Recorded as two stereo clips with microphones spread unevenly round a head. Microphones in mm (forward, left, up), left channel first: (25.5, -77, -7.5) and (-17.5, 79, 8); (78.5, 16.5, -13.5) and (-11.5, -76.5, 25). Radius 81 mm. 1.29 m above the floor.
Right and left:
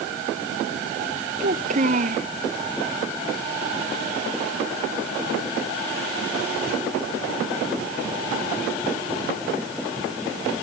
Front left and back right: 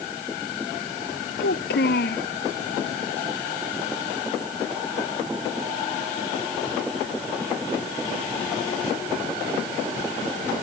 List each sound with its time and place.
1.4 s a child speaking: 60° left